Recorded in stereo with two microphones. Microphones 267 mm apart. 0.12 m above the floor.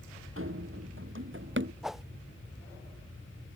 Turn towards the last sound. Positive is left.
turn(degrees=0)  # may be behind; listen again after turning